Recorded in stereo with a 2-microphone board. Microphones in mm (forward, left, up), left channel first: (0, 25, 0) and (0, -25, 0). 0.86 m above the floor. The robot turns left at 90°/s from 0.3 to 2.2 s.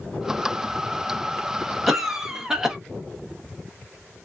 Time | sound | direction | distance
1.9 | a cough | 5° right (ahead or behind) | 0.8 m